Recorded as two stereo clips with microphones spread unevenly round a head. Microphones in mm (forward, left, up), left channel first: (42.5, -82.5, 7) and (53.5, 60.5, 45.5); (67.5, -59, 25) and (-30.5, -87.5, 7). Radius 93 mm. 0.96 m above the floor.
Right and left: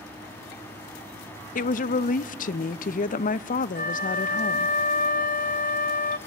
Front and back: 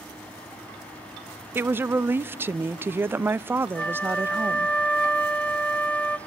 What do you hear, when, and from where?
1.6 s a woman speaking: 100° right, 0.6 m
3.8 s a flute: 60° right, 0.7 m